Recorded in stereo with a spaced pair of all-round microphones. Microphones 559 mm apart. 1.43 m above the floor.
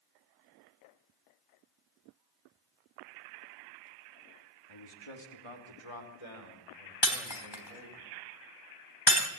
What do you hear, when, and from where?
4.7 s a man speaking: 55° left (ahead or behind), 3 m; by 8.0 s 85° left, 7 m
7.0 s breaking glass: 45° left (ahead or behind), 3 m